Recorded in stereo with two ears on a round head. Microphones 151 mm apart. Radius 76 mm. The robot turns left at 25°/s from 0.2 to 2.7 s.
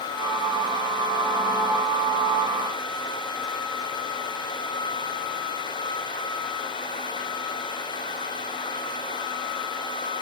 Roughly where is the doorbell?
I don't hear a doorbell.